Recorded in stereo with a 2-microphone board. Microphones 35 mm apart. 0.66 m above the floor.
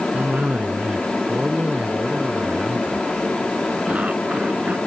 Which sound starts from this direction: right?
A cough, at 0.1 s.